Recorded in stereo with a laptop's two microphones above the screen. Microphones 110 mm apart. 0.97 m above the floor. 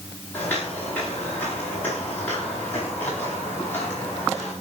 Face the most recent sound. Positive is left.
turn(degrees=15)  # may be behind; listen again after turning